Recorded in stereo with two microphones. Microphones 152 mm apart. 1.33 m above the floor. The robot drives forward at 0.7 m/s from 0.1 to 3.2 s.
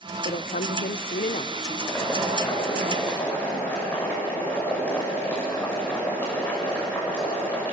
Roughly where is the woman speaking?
Left.